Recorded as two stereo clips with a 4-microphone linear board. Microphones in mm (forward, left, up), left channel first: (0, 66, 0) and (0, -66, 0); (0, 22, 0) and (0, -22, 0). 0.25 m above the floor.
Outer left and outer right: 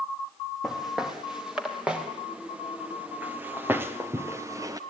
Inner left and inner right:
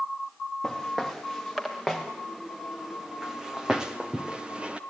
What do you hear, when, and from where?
0.6 s footsteps: 5° right (ahead or behind), 6 m; by 4.8 s 25° right (ahead or behind), 1.9 m